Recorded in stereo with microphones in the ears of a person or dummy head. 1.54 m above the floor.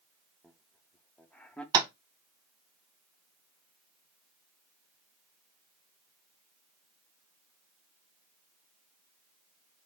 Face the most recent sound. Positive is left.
turn(degrees=-20)  # may be behind; listen again after turning